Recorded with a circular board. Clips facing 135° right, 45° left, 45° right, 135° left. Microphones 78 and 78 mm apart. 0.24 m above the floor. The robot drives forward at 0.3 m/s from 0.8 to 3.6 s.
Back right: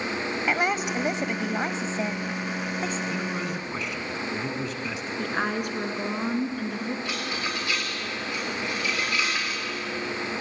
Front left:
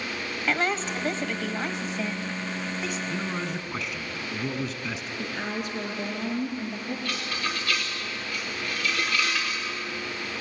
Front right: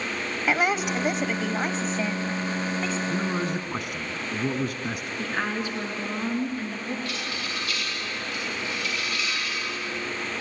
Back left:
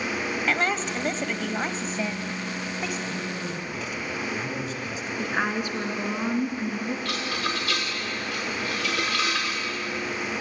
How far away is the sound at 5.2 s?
About 3.5 m.